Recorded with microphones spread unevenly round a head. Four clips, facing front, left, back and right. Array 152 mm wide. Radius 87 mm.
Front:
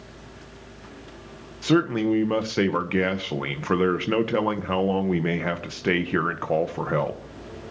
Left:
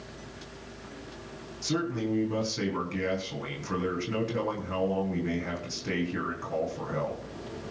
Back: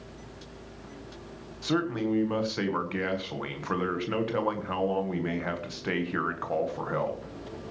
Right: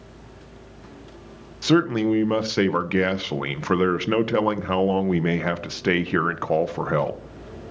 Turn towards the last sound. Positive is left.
turn(degrees=-40)